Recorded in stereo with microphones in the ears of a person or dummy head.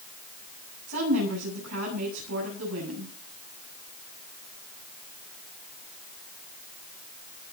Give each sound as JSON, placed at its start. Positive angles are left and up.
{"t": 0.9, "sound": "a woman speaking", "side_deg": -85, "distance_m": 8.5}